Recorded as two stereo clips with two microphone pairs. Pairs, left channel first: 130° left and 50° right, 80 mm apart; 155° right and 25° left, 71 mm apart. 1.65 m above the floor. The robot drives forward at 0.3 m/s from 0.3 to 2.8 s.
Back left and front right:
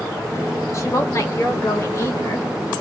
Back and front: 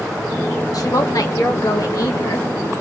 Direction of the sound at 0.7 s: Straight behind.